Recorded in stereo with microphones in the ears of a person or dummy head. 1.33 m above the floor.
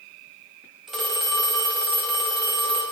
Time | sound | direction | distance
0.9 | a phone ringing | centre (ahead or behind) | 0.7 m